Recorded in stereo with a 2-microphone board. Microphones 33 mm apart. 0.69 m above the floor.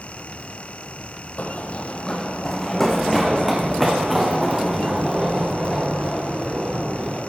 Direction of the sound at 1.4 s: 50° left (ahead or behind).